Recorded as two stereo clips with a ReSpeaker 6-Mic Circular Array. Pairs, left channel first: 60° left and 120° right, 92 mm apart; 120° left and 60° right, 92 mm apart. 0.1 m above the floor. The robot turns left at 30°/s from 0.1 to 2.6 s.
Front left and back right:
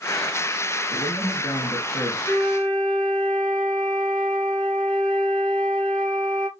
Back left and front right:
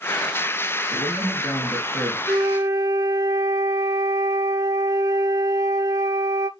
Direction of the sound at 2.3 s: 5° right.